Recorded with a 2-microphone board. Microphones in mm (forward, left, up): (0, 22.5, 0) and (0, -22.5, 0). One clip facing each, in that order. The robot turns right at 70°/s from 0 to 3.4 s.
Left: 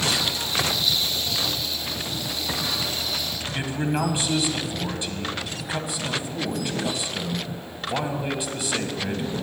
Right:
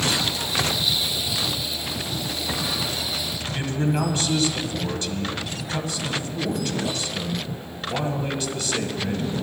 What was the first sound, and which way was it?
A man speaking, 15° left (ahead or behind).